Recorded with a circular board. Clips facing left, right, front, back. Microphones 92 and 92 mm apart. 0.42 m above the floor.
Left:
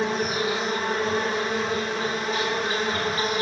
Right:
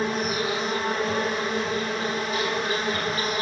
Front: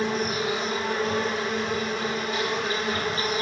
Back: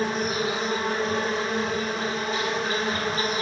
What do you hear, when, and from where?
0.0 s an insect: 140° left, 2 m